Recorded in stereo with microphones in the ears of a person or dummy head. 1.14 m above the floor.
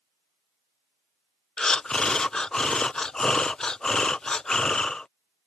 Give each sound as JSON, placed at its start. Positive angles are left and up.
{"t": 1.6, "sound": "breathing", "side_deg": 5}